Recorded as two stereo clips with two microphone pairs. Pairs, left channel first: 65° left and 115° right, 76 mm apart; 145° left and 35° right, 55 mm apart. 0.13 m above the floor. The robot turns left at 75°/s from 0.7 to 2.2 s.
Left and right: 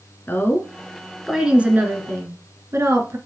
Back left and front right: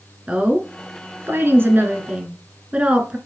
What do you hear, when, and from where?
0.3 s a woman speaking: 25° left, 1.5 m; by 3.2 s 90° right, 1.5 m